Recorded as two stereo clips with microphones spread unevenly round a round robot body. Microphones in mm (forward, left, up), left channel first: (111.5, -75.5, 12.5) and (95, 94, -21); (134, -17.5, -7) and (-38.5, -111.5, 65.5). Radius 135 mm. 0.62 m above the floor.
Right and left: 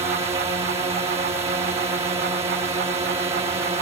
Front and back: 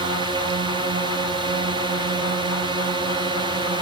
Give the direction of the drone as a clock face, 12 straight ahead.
8 o'clock.